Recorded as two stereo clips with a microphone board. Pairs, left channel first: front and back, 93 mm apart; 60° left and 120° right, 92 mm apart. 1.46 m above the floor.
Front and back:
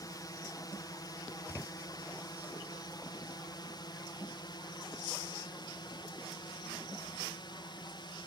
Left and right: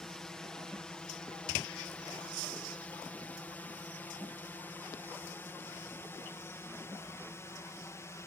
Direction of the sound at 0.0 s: 20° right.